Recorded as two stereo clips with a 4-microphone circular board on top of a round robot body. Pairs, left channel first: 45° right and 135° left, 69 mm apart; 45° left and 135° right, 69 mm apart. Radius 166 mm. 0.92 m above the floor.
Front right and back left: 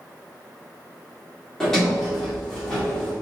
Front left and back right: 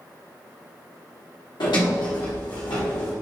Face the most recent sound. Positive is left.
turn(degrees=35)